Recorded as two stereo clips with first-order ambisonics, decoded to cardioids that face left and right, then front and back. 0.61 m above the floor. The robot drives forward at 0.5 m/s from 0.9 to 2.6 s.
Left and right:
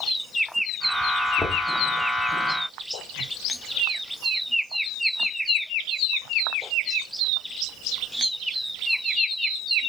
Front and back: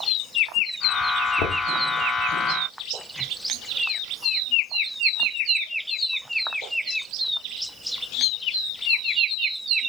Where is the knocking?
15° left, 1.3 m; by 1.6 s 20° left, 1.2 m.